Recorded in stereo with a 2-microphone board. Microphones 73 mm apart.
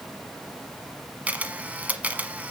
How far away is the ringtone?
I don't hear a ringtone.